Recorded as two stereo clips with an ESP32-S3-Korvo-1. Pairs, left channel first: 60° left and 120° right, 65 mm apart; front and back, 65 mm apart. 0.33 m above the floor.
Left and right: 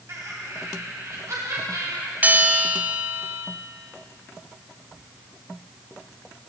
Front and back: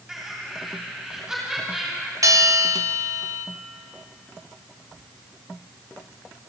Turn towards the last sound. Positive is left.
turn(degrees=180)